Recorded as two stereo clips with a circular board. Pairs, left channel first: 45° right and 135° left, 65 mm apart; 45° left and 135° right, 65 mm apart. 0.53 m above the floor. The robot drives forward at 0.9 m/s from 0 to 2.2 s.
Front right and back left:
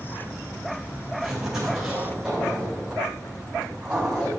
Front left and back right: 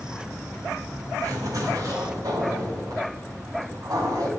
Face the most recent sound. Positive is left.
turn(degrees=-150)